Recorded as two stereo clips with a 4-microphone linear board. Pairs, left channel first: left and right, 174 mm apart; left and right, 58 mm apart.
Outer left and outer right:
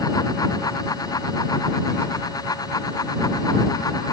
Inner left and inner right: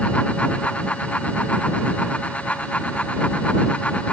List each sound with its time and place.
Only background noise.